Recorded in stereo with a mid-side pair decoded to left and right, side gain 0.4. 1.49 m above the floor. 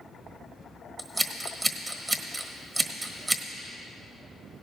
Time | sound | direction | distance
1.0 | scissors | 30° right | 1.3 m